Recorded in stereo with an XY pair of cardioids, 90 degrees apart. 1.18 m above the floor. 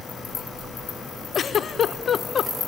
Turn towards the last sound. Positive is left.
turn(degrees=55)